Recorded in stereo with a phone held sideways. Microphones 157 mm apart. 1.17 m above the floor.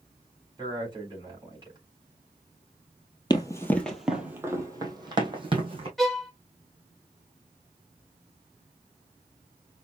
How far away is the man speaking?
About 3.5 m.